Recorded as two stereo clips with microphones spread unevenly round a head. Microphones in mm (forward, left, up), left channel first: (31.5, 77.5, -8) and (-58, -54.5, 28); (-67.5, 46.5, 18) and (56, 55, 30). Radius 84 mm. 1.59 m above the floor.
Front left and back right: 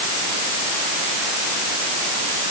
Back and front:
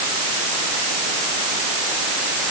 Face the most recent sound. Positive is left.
No sound to turn to.